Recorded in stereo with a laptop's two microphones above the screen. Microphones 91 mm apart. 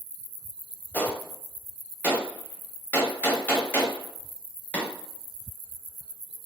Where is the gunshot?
20° left (ahead or behind), 0.6 m.